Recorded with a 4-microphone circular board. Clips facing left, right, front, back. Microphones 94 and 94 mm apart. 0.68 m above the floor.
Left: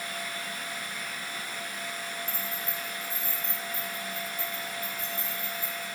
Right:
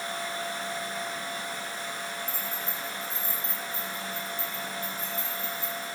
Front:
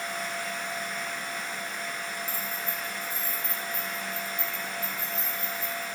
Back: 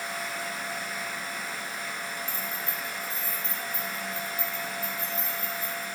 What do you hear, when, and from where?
2.3 s keys jangling: 115° left, 5 m; by 5.8 s 135° left, 8 m